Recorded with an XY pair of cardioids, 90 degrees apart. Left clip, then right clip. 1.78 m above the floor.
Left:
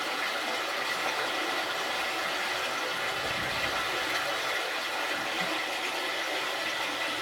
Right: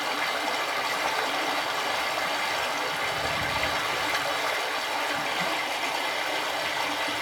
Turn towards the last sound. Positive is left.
turn(degrees=-65)